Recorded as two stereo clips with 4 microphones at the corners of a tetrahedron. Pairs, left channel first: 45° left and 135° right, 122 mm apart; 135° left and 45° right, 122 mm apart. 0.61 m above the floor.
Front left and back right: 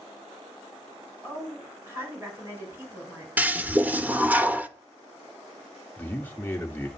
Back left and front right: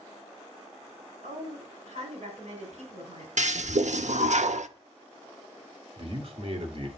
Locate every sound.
1.2 s a woman speaking: 65° right, 6 m
3.4 s a toilet flushing: 60° right, 0.7 m
6.0 s a man speaking: 25° right, 1.9 m